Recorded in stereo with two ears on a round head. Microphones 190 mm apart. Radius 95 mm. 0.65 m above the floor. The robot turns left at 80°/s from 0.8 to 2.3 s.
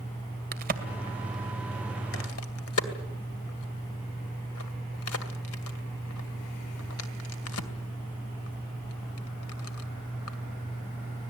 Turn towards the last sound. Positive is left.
turn(degrees=75)  # may be behind; listen again after turning